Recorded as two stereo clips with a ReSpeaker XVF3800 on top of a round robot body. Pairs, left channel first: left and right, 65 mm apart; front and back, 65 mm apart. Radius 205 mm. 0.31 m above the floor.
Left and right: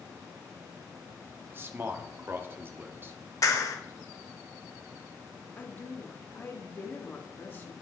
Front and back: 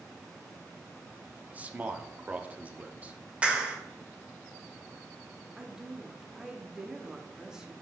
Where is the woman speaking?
110° left, 1.3 m.